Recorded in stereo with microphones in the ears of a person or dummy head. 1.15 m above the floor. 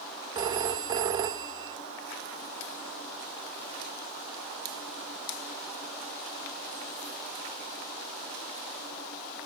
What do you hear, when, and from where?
0.3 s a phone ringing: 25° right (ahead or behind), 0.7 m